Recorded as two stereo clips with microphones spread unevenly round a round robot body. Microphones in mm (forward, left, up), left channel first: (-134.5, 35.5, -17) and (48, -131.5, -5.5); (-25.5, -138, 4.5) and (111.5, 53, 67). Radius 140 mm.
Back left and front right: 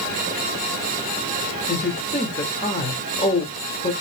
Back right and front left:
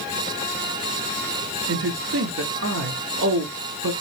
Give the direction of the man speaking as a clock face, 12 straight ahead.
9 o'clock.